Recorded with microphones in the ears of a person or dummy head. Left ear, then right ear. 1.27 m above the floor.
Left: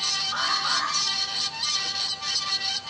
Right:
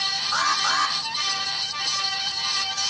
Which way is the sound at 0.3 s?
70° right (ahead or behind).